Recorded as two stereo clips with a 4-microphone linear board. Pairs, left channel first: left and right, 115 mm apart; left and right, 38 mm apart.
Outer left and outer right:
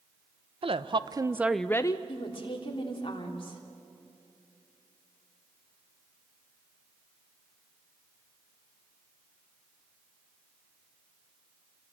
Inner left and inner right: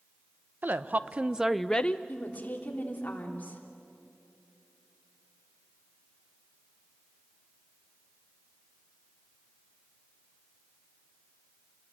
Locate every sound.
0.6 s a woman speaking: 60° right (ahead or behind), 0.9 m; by 2.0 s 40° left (ahead or behind), 0.6 m
2.1 s a woman speaking: 50° left (ahead or behind), 3 m